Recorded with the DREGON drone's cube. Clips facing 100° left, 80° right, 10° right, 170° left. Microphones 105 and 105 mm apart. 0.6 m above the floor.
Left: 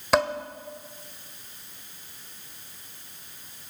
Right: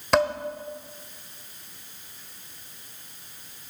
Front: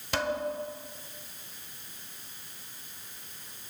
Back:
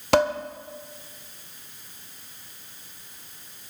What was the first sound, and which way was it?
Dishes clattering, 170° right.